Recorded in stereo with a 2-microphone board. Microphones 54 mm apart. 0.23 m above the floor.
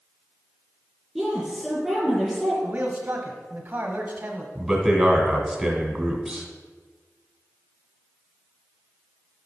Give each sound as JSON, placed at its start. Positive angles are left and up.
{"t": 1.1, "sound": "a woman speaking", "side_deg": 0, "distance_m": 3.5}
{"t": 2.6, "sound": "a man speaking", "side_deg": -30, "distance_m": 1.1}
{"t": 4.5, "sound": "a man speaking", "side_deg": -5, "distance_m": 2.0}